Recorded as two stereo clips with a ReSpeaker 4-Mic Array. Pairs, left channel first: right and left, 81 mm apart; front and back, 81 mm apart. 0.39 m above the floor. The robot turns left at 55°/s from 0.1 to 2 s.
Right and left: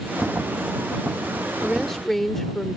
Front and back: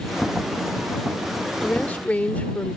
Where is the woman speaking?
10° left; by 2.8 s 10° right.